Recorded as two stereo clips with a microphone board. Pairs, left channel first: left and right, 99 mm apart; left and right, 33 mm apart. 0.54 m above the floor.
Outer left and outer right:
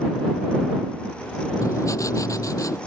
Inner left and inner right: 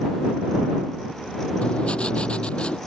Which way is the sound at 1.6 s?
35° left (ahead or behind).